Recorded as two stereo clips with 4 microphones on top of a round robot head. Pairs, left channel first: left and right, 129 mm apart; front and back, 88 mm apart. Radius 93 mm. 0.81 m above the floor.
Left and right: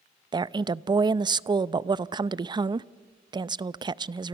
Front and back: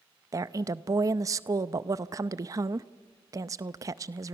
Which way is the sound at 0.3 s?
140° right.